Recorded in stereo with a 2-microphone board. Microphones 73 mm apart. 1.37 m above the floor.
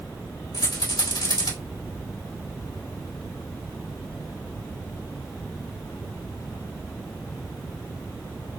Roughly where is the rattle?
Left.